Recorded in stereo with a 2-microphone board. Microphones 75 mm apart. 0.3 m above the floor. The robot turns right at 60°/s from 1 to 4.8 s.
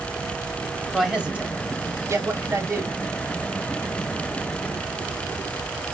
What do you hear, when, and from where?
0.9 s a man speaking: 175° right, 1.2 m; by 2.9 s 55° right, 1.2 m